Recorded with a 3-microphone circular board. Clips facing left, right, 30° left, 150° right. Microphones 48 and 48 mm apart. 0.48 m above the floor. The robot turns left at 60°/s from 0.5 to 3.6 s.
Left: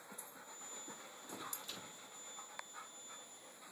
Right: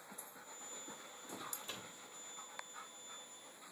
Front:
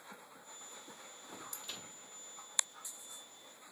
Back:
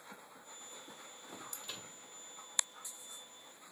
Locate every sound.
1.6 s a microwave: 60° right, 0.6 m; by 2.0 s 80° right, 0.6 m